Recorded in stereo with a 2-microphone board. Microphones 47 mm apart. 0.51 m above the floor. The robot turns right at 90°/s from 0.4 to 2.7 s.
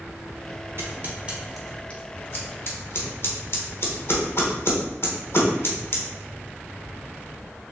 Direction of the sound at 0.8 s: 55° right (ahead or behind).